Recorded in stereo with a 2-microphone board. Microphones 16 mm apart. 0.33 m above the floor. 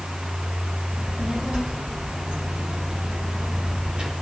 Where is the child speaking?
60° right (ahead or behind), 7.5 m; by 4.1 s 75° right (ahead or behind), 4.5 m.